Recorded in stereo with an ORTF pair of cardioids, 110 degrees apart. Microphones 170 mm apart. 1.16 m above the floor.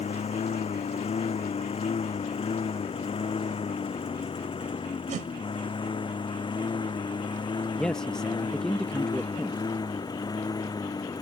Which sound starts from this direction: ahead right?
A whoosh, at 5.1 s.